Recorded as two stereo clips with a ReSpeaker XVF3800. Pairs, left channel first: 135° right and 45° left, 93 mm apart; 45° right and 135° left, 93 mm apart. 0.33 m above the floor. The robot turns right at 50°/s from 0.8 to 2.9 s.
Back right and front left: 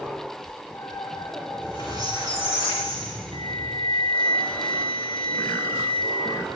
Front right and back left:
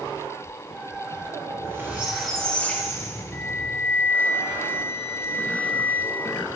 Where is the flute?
115° right, 0.7 m.